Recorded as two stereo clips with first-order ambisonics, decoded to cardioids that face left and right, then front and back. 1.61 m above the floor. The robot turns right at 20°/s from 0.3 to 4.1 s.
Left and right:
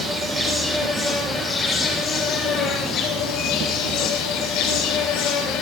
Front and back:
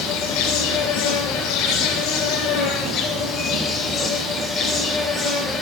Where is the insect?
15° right, 3 m; by 5.6 s 60° left, 3 m.